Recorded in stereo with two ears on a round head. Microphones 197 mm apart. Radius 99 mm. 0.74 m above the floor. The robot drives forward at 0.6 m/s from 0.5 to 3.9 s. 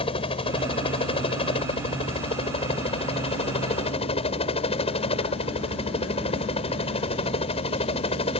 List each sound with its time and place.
0.0 s a helicopter: 25° left (ahead or behind)